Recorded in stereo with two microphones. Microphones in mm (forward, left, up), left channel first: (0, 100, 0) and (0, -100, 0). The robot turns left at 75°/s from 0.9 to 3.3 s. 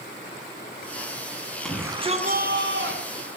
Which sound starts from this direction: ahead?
A shout, at 1.6 s.